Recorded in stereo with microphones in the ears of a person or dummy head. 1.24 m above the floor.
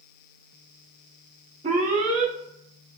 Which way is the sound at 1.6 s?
25° right (ahead or behind).